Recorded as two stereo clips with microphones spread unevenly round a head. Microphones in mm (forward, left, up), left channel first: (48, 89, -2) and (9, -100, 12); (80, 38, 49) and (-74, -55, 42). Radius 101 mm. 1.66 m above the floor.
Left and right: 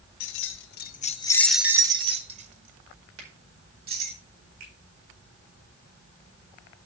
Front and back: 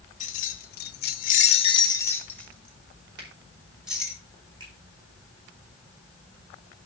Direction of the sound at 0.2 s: 80° left.